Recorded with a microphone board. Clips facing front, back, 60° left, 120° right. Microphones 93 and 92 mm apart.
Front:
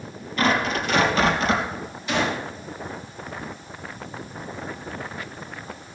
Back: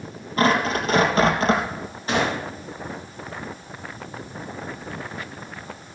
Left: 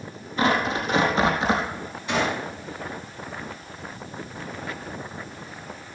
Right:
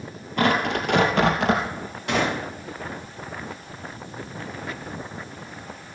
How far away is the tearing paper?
About 3 m.